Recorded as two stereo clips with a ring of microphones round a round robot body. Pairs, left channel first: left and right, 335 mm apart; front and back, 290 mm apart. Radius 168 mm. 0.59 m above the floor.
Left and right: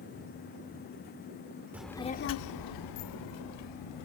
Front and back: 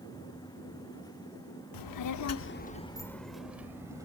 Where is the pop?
I don't hear a pop.